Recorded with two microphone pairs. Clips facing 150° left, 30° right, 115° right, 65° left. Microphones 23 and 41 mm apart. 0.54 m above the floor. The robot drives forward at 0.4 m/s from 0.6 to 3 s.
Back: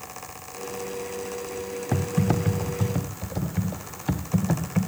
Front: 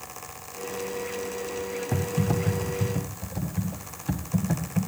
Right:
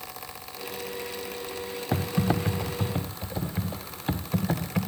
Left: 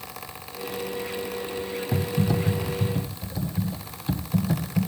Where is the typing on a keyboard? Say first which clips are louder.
Back 3 dB, even; 145° right, 1.4 m; by 4.9 s 155° right, 1.7 m.